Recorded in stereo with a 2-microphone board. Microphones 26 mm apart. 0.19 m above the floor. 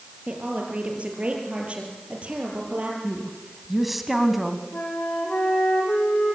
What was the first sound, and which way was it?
A woman speaking, 45° right (ahead or behind).